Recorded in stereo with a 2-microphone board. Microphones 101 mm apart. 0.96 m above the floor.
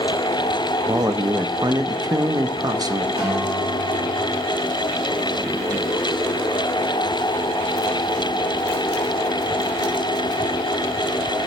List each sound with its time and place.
0.9 s a man speaking: 40° right (ahead or behind), 0.8 m
3.2 s a guitar: 60° right (ahead or behind), 6.5 m